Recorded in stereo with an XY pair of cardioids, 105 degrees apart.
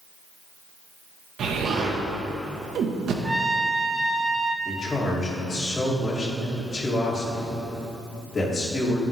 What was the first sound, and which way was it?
An explosion, 65° right.